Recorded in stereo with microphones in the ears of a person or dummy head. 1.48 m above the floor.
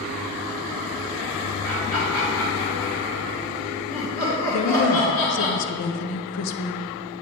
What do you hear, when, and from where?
1.6 s laughter: 10° left (ahead or behind), 1.8 m
4.5 s a woman speaking: 90° left, 0.8 m